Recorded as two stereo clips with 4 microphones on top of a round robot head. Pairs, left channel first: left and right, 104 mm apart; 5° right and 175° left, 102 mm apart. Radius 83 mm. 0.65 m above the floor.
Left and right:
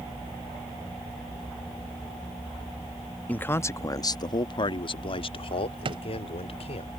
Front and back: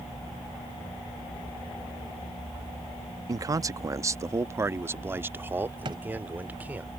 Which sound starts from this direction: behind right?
A drawer, at 5.8 s.